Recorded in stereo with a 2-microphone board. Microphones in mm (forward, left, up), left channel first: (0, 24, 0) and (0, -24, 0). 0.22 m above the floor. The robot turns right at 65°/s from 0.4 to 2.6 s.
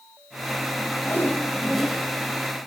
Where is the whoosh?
130° left, 2.5 m; by 2.0 s 165° right, 2.5 m.